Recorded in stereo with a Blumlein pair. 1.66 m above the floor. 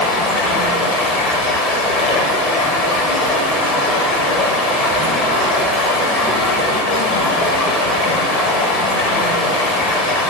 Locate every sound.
0.0 s running water: 30° left, 1.4 m